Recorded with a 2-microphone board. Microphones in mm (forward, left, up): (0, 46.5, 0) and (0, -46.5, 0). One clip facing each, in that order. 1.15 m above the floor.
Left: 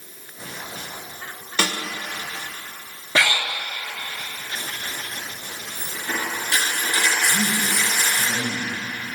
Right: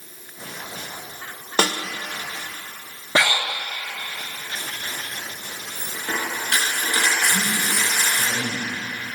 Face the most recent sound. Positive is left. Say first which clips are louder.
# left 1 dB
turn(degrees=-75)  # may be behind; listen again after turning